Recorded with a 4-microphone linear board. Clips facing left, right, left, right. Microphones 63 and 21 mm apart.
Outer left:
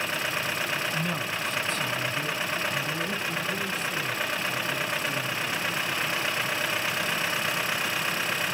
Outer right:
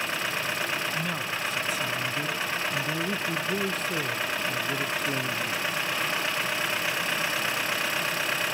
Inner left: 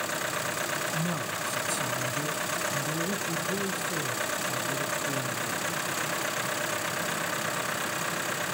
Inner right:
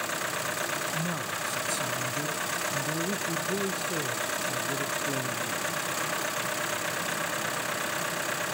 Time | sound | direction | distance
0.9 | a man speaking | 10° left (ahead or behind) | 1.4 m